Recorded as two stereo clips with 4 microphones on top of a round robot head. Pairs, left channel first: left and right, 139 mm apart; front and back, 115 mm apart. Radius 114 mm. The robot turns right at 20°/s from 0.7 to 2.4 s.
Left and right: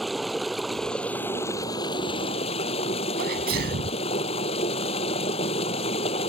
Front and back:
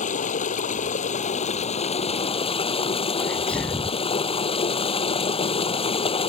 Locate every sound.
0.0 s running water: straight ahead; by 6.3 s 35° left
3.2 s a sneeze: 85° right